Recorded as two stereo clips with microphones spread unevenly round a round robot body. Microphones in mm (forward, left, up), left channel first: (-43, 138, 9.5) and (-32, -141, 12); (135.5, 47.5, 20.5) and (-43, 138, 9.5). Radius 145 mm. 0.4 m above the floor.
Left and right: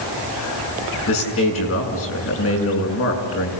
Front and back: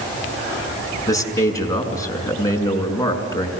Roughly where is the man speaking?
Ahead left.